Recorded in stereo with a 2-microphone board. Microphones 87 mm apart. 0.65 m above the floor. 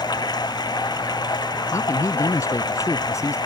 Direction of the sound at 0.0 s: 50° left (ahead or behind).